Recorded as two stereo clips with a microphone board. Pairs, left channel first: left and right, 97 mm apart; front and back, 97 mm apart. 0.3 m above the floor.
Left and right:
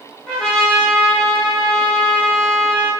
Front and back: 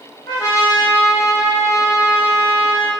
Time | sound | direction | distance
0.3 | a trumpet | 20° left | 1.3 m